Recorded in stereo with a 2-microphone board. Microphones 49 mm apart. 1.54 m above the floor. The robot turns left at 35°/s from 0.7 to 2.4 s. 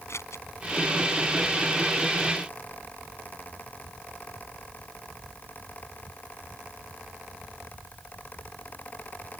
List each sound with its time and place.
0.1 s scissors: 80° left